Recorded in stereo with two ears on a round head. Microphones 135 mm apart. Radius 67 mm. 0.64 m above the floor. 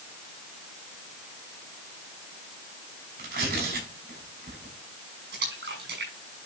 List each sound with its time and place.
3.2 s tearing paper: 65° right (ahead or behind), 6 m
5.3 s a splash: 75° right (ahead or behind), 5.5 m